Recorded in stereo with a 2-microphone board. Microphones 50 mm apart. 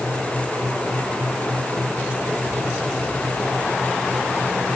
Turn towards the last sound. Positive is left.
No sound to turn to.